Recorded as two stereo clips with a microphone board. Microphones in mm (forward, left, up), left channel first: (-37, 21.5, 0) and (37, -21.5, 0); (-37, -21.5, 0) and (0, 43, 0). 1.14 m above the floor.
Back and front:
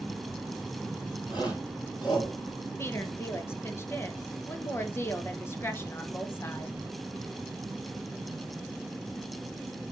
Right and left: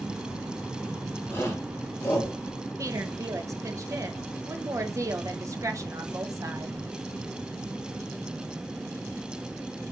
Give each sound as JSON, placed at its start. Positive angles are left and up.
{"t": 1.3, "sound": "a shout", "azimuth_deg": 175, "distance_m": 4.5}
{"t": 2.8, "sound": "a woman speaking", "azimuth_deg": 95, "distance_m": 1.3}